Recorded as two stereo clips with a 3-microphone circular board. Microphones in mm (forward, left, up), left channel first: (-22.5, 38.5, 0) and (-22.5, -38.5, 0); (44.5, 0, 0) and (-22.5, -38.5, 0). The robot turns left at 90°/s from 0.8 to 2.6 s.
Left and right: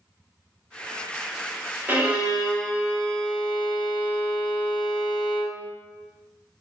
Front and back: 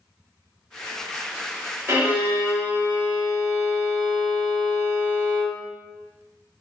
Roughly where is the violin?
Behind right.